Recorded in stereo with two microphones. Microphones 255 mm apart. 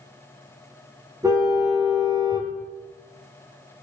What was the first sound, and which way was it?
A car horn, 15° right (ahead or behind).